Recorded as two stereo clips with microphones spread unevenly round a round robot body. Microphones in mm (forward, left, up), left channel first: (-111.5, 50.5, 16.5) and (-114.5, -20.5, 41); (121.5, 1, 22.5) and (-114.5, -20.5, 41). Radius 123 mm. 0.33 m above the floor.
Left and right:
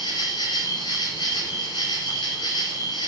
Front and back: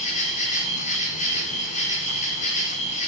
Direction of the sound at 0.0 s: 65° left.